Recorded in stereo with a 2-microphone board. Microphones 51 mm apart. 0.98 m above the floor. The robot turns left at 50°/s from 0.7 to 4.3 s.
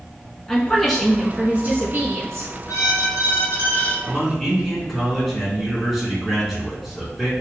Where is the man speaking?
10° right (ahead or behind), 2 m; by 7.3 s 5° left (ahead or behind), 2 m.